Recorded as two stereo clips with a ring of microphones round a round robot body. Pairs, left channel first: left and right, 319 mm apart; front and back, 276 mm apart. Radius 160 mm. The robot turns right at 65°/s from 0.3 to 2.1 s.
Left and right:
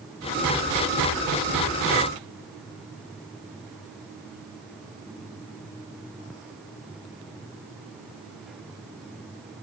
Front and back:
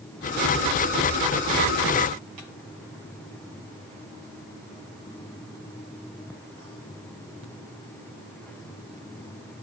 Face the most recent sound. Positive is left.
No sound to turn to.